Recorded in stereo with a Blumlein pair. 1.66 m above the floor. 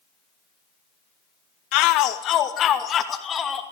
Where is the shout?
40° left, 2 m; by 3.6 s 20° left, 3 m.